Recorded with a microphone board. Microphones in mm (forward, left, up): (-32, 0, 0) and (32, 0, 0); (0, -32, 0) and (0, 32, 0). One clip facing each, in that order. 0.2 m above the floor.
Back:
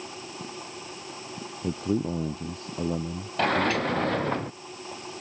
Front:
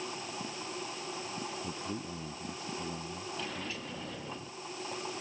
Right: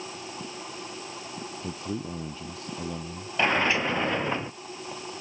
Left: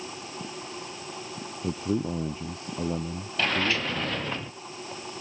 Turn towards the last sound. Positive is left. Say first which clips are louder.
# back 22 dB, right 3 dB
turn(degrees=-160)